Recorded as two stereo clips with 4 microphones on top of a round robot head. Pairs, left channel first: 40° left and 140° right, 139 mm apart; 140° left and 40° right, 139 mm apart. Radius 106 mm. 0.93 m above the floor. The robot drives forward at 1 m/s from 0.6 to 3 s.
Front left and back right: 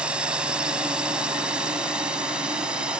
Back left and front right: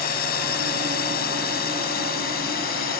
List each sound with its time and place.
0.0 s a drone: 140° left